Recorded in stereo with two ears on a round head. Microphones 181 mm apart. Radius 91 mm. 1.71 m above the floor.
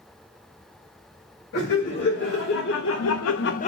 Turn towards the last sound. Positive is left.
turn(degrees=30)  # may be behind; listen again after turning